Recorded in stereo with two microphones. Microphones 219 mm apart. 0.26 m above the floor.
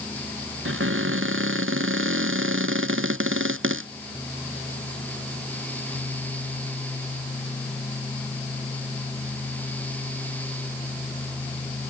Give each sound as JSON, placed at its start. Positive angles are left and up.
{"t": 0.7, "sound": "a cupboard door", "side_deg": -70}